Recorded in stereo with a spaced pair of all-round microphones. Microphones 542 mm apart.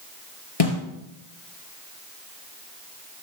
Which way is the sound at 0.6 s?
75° left (ahead or behind).